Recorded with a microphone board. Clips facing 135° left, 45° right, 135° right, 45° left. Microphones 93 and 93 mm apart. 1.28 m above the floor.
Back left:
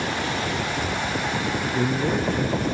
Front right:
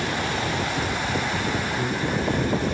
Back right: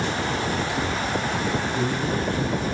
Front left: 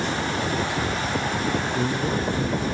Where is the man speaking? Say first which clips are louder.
Back left 3 dB, even; 115° left, 3.5 m.